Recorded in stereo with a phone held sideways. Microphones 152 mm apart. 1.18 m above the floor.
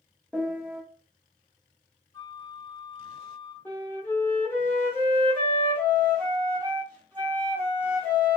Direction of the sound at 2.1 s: 25° left (ahead or behind).